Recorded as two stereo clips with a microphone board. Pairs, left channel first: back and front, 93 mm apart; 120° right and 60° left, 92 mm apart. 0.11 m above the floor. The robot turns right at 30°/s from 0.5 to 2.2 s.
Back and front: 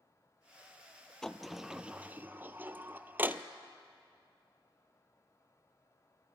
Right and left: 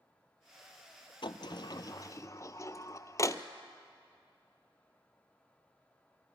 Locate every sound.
1.2 s a sliding door: 95° right, 0.7 m; by 3.4 s 70° right, 0.7 m